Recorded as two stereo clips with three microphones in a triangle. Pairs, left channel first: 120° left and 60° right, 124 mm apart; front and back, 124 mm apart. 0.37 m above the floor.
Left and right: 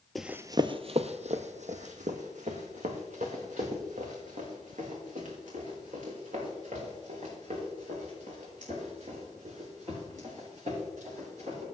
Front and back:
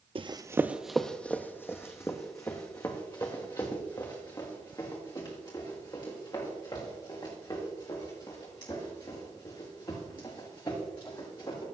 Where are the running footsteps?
150° right, 0.5 m; by 11.6 s 50° right, 9 m.